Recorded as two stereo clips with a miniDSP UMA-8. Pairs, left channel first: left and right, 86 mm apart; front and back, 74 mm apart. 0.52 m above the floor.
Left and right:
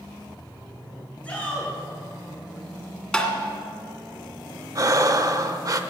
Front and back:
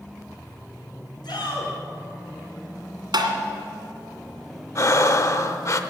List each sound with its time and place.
1.2 s a shout: 15° left, 6.5 m
3.1 s tapping: 170° left, 2.0 m
4.8 s breathing: 45° right, 0.7 m